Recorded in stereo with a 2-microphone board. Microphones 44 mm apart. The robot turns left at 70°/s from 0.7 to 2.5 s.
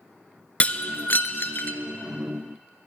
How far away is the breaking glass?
About 0.7 m.